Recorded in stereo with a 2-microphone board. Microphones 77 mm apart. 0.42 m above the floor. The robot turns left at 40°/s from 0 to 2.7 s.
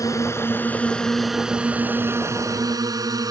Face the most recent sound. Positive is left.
turn(degrees=-55)  # may be behind; listen again after turning